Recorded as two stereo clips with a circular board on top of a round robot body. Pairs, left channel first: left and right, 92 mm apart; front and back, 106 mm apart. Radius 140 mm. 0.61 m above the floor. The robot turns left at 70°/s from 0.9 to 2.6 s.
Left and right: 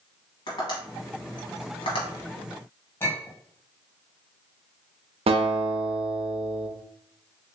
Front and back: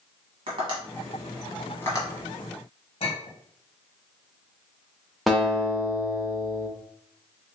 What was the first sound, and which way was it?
Tapping, 135° left.